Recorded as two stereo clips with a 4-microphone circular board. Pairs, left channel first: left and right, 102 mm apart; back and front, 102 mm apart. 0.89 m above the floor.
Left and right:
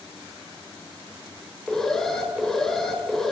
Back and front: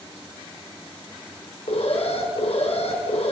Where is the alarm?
175° left, 3.5 m.